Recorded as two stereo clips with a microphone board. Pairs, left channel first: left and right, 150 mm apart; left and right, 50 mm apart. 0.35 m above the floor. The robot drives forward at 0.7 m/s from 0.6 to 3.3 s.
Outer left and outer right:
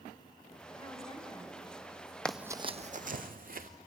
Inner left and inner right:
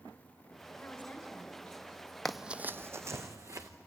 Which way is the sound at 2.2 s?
5° left (ahead or behind).